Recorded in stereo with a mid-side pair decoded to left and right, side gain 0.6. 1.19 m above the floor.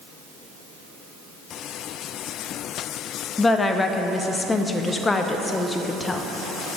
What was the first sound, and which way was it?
A woman speaking, 20° left.